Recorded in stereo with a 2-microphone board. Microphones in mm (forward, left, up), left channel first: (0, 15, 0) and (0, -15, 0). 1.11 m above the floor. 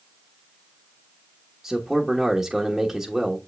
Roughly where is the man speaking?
Centre.